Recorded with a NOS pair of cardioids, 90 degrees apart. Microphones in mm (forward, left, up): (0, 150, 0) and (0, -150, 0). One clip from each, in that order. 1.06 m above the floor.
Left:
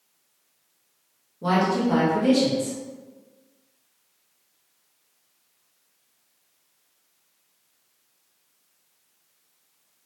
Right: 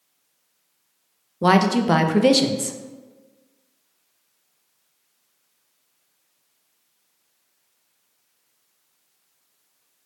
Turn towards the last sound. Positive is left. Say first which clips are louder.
# right 5 dB
turn(degrees=-65)